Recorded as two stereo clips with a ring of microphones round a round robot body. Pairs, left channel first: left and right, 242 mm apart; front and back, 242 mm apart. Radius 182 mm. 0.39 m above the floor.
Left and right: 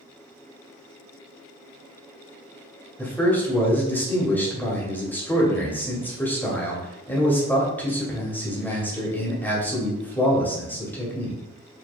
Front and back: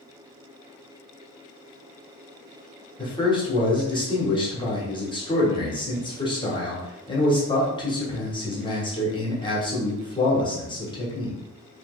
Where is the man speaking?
20° left, 1.5 m.